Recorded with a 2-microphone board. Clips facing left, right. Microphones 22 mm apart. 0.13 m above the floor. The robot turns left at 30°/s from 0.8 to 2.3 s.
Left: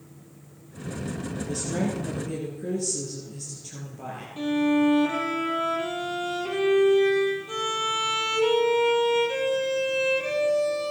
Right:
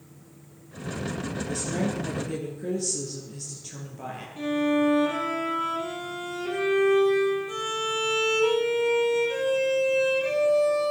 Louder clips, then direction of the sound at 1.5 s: Left 1 dB; 15° left (ahead or behind).